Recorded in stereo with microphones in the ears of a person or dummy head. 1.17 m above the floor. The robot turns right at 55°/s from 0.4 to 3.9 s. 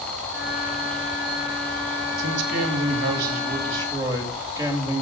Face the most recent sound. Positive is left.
turn(degrees=-15)